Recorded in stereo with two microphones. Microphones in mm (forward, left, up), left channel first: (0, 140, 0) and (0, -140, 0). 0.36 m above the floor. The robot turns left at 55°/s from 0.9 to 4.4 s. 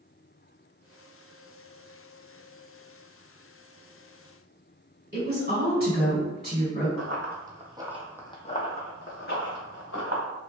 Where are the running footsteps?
50° right (ahead or behind), 0.8 m; by 10.2 s 65° left (ahead or behind), 1.4 m.